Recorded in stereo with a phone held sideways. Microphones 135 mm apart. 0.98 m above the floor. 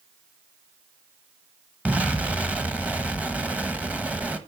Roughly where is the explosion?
Centre.